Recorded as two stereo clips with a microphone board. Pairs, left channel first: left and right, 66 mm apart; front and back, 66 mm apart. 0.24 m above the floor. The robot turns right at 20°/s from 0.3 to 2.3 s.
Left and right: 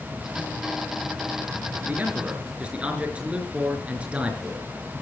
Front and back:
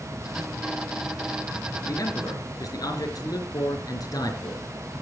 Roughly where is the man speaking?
Ahead right.